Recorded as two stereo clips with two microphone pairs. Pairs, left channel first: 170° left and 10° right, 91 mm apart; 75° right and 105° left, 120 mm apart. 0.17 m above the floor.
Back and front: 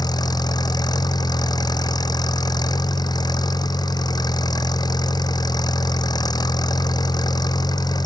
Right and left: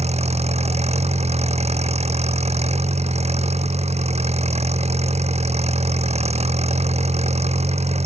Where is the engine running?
130° left.